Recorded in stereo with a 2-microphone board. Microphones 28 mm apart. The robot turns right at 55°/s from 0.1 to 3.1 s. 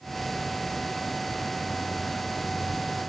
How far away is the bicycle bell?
I don't hear a bicycle bell.